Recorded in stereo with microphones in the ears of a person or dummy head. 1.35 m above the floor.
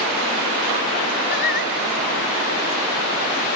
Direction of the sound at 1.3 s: 55° left (ahead or behind).